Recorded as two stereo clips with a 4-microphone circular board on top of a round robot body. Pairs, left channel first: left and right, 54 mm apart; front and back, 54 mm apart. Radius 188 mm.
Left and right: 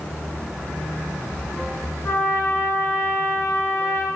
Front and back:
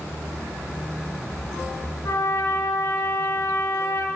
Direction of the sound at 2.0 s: 35° left.